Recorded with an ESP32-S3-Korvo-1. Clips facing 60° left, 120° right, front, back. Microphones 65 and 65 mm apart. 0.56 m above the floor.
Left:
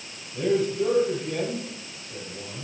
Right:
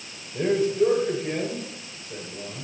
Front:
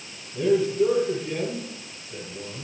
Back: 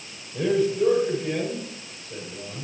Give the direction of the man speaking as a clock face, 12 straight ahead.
5 o'clock.